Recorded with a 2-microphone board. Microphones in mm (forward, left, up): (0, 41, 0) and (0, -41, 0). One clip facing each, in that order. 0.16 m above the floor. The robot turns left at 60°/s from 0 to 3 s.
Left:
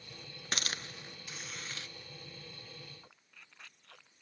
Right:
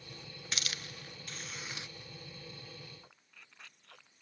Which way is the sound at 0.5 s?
50° left (ahead or behind).